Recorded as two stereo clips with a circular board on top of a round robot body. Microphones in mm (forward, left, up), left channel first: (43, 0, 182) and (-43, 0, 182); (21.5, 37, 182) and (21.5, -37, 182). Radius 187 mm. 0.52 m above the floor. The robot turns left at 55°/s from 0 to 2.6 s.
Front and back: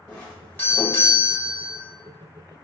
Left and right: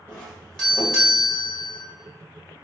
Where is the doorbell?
55° left, 1.6 m; by 1.8 s 40° right, 1.6 m.